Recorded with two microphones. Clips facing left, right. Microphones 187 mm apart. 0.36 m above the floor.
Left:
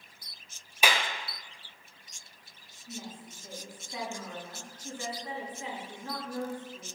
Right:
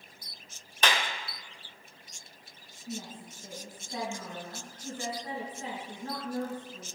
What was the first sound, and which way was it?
A clap, 10° left (ahead or behind).